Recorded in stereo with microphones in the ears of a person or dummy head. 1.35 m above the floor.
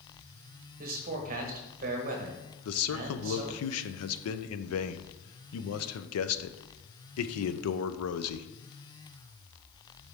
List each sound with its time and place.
0.8 s a man speaking: 45° right (ahead or behind), 1.2 m
2.6 s a man speaking: 80° left, 0.5 m